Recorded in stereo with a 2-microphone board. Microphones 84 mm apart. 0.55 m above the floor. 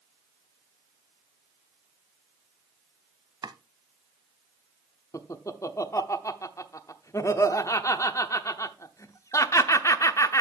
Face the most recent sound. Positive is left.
turn(degrees=40)  # may be behind; listen again after turning